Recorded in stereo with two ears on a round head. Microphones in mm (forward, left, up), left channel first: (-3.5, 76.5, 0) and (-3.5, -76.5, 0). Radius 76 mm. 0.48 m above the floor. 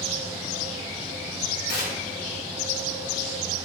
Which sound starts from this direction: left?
Tearing paper, at 1.7 s.